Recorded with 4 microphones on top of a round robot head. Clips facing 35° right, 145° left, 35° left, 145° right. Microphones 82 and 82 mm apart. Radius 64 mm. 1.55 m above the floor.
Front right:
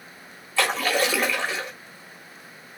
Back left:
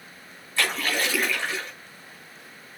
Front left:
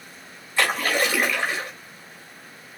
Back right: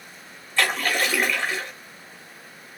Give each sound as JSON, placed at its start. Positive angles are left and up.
{"t": 0.6, "sound": "a splash", "azimuth_deg": -45, "distance_m": 2.5}